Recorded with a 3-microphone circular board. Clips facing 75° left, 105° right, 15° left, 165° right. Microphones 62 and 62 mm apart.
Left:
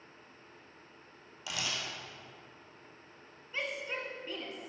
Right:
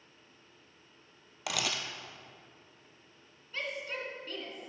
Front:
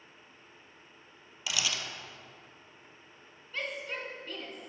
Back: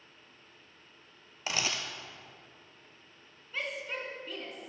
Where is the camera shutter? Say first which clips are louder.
Right 3 dB, back 1 dB; 115° right, 0.8 m.